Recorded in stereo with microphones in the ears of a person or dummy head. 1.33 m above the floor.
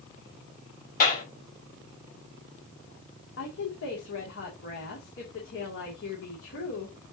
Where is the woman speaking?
75° left (ahead or behind), 2.5 m.